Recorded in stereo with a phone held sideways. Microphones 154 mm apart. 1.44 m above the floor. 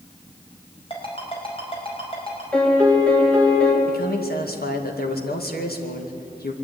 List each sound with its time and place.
0.9 s a ringtone: 35° left (ahead or behind), 5 m
2.5 s a piano: 10° left (ahead or behind), 3.5 m
3.9 s a man speaking: 80° left, 2.5 m